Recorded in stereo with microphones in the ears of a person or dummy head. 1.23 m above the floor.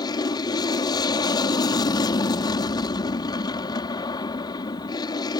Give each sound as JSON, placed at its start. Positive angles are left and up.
{"t": 0.0, "sound": "an aircraft", "side_deg": 20}